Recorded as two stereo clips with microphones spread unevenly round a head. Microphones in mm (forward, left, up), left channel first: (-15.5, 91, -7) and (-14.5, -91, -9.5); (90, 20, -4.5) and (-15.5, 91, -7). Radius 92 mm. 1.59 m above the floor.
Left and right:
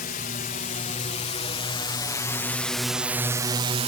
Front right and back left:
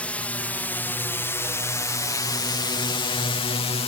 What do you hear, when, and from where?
0.0 s a drone: 45° left; by 3.9 s 50° right